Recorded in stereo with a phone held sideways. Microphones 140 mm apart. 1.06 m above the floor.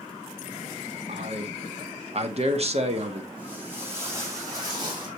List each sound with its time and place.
1.1 s a man speaking: 50° right (ahead or behind), 1.0 m
3.4 s footsteps: 10° right (ahead or behind), 3.5 m; by 5.1 s 35° right (ahead or behind), 3 m